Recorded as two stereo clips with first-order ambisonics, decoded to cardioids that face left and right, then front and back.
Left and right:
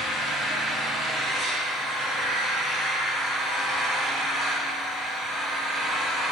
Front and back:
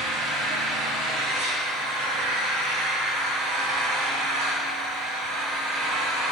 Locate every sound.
0.0 s an engine running: 160° left, 3.5 m